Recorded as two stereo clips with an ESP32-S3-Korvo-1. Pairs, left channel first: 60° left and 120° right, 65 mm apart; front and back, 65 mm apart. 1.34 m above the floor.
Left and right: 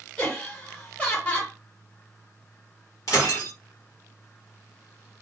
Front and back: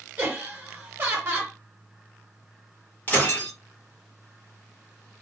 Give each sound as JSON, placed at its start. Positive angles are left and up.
{"t": 0.2, "sound": "laughter", "azimuth_deg": 125, "distance_m": 1.0}
{"t": 3.1, "sound": "breaking glass", "azimuth_deg": 55, "distance_m": 1.3}